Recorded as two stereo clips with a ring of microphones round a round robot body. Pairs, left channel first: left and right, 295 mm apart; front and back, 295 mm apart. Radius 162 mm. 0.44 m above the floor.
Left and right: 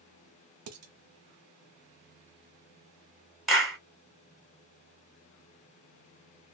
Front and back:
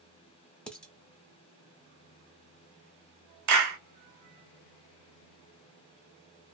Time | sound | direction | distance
0.7 | dishes clattering | 85° right | 0.8 m
3.5 | a clap | straight behind | 1.8 m